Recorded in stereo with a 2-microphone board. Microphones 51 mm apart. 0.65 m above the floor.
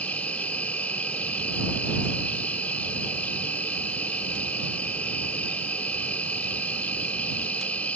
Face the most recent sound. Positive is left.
turn(degrees=30)  # may be behind; listen again after turning